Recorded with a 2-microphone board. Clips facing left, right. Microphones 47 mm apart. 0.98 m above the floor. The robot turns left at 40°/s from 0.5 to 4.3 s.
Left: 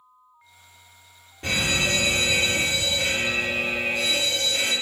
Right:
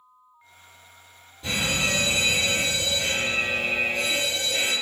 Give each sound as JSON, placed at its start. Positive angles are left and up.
{"t": 1.4, "sound": "a fire alarm", "azimuth_deg": 110, "distance_m": 3.5}